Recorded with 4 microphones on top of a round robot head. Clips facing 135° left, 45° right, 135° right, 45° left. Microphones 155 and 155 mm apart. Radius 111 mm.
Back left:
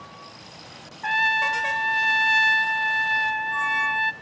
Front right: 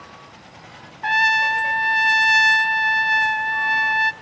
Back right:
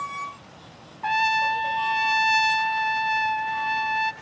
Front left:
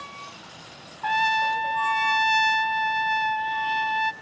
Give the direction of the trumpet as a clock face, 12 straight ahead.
2 o'clock.